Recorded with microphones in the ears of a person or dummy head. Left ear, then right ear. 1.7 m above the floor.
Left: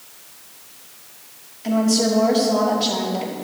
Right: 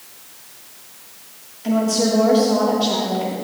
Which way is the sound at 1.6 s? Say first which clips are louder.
Even; 15° left (ahead or behind).